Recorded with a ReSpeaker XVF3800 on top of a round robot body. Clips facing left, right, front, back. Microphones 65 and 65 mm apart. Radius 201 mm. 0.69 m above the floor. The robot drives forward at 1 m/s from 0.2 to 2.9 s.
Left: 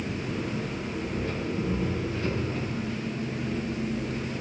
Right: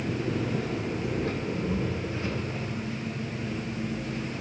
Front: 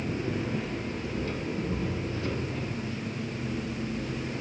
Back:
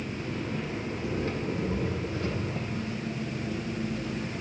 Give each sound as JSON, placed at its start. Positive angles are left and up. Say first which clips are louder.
{"t": 0.0, "sound": "an engine running", "louder": "right 2 dB, front 3 dB", "azimuth_deg": -65, "distance_m": 1.0}